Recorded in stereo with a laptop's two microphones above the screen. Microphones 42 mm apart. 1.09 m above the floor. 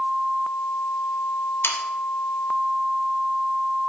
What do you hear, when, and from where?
1.6 s sawing: 70° left (ahead or behind), 0.8 m